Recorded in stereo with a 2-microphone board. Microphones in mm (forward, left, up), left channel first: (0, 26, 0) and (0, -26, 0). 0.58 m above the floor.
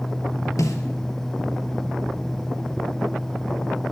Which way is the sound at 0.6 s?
85° left.